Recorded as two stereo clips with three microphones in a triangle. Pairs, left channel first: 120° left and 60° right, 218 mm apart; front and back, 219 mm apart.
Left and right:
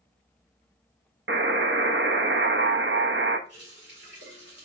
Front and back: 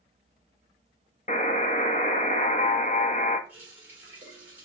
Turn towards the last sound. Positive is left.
turn(degrees=-100)